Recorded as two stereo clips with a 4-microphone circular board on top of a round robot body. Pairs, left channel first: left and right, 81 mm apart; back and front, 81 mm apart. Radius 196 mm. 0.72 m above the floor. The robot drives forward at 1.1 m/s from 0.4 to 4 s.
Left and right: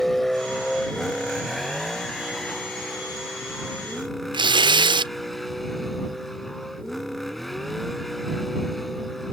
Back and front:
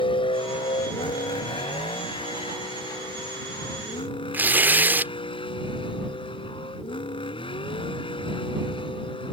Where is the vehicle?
Straight behind.